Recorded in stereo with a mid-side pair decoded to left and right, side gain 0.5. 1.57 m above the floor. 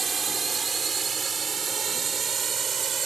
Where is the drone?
35° right; by 3.1 s 45° right.